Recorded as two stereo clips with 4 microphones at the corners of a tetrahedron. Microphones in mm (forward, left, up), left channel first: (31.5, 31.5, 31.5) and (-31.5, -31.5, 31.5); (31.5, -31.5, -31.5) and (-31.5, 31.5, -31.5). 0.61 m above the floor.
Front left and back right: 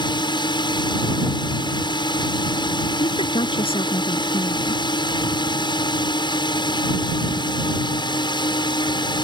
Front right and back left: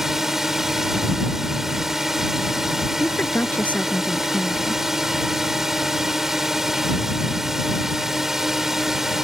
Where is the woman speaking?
30° left.